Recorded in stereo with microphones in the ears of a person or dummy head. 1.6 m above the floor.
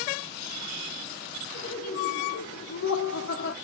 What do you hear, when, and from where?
1.5 s laughter: 40° left (ahead or behind), 0.9 m; by 3.5 s 60° left (ahead or behind), 0.9 m